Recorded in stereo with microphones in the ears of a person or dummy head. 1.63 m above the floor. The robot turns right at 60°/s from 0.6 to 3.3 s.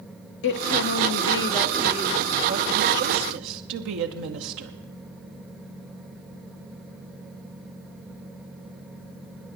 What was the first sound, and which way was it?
A woman speaking, 110° left.